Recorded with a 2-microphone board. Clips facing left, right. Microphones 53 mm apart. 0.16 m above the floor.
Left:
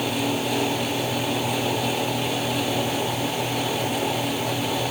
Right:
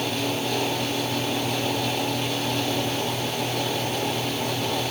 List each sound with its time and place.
Only background noise.